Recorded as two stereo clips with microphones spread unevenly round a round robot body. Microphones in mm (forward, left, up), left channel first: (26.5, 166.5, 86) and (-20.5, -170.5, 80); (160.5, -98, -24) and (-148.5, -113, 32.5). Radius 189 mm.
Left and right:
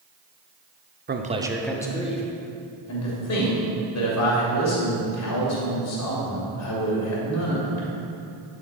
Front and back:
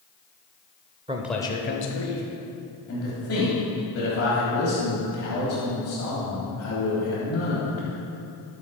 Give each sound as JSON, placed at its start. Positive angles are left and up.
{"t": 1.1, "sound": "a man speaking", "azimuth_deg": -100, "distance_m": 0.9}
{"t": 2.9, "sound": "a man speaking", "azimuth_deg": 50, "distance_m": 2.5}